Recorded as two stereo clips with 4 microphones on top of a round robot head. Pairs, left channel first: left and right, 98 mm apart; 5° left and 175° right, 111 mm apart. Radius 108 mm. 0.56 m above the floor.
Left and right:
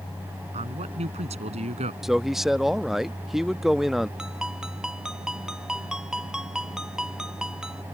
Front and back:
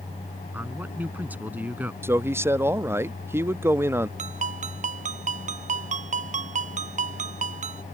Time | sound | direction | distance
0.5 | a man speaking | 100° right | ?
2.0 | a man speaking | 170° right | ?
4.2 | a ringtone | 175° right | ?